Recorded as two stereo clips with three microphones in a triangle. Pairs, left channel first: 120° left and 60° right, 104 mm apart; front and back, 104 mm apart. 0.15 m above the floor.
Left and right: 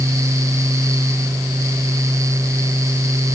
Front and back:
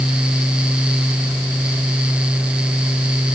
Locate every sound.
Only background noise.